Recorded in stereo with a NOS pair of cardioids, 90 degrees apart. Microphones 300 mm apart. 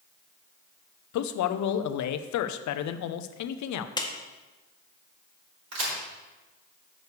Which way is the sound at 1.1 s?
65° left.